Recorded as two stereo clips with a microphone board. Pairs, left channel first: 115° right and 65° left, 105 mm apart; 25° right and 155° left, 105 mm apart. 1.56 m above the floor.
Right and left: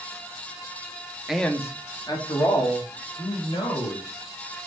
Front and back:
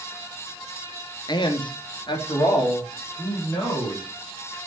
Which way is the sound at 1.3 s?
15° right.